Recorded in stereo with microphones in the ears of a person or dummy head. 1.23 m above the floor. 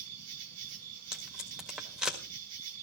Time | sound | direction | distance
0.0 | an insect | 75° right (ahead or behind) | 2.0 m
1.1 | tape being pulled | 10° right (ahead or behind) | 1.8 m